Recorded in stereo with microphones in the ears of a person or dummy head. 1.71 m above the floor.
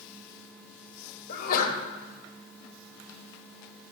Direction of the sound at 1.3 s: 50° left (ahead or behind).